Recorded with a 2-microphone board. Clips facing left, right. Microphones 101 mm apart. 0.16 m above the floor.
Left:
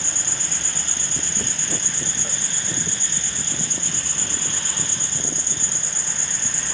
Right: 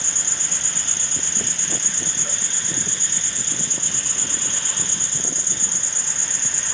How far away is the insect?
About 0.9 m.